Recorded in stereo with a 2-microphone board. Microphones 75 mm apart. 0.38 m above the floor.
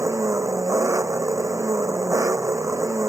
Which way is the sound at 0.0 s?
45° right (ahead or behind).